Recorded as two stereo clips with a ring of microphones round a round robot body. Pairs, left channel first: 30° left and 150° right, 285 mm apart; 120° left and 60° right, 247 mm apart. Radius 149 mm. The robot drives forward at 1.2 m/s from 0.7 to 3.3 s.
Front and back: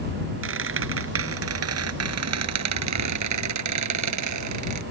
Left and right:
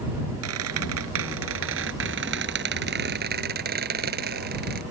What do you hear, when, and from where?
0.4 s a squeak: 100° right; by 4.8 s 120° right